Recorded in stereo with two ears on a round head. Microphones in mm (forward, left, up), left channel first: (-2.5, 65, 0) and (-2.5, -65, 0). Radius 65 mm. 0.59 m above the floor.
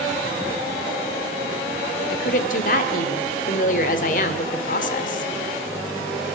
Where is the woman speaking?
60° left (ahead or behind), 1.9 m.